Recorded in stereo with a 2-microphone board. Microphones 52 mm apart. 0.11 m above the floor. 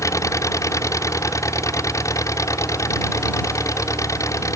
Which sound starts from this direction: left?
An engine running, at 0.0 s.